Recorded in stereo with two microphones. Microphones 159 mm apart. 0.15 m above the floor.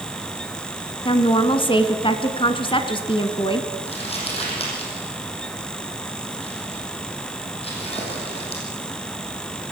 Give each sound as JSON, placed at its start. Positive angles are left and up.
{"t": 1.1, "sound": "a woman speaking", "side_deg": 35, "distance_m": 1.4}
{"t": 3.9, "sound": "crumpling", "side_deg": 40, "distance_m": 6.5}